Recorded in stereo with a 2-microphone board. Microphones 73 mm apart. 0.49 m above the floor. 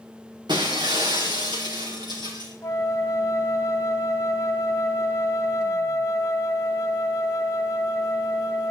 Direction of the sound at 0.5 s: 80° right.